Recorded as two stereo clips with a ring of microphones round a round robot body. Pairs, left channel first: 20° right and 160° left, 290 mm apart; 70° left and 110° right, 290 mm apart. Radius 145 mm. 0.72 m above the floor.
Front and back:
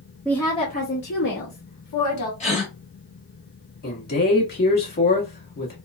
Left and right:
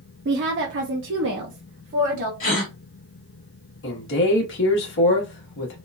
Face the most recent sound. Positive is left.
turn(degrees=30)